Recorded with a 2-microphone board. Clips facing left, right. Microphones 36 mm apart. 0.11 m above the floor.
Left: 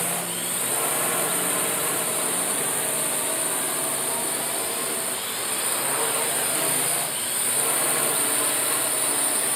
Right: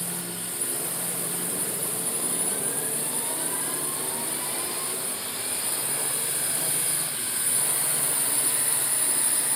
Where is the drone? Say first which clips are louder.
Left 7 dB; 65° left (ahead or behind); by 9.6 s 50° left (ahead or behind).